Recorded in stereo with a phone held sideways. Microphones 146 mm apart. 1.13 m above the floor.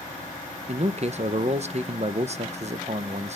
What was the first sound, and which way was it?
A man speaking, 50° right (ahead or behind).